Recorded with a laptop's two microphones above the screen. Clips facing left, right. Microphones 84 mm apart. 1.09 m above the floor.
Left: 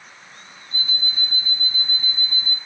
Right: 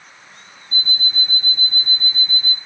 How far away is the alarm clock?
About 2 m.